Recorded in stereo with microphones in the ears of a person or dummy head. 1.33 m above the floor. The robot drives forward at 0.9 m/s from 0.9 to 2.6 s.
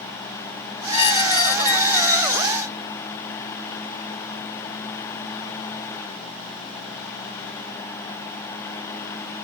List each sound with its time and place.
0.9 s a squeak: 30° left (ahead or behind), 0.9 m; by 2.7 s 10° left (ahead or behind), 2 m